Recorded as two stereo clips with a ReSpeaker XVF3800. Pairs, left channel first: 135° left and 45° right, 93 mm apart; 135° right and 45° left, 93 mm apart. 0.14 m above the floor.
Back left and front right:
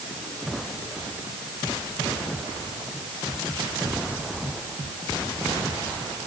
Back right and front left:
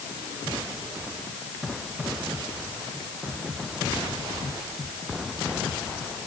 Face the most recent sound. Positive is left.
No sound to turn to.